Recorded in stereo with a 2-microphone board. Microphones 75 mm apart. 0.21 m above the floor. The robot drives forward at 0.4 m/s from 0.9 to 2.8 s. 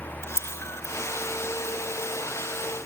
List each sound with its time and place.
0.2 s a camera shutter: 35° left (ahead or behind), 3 m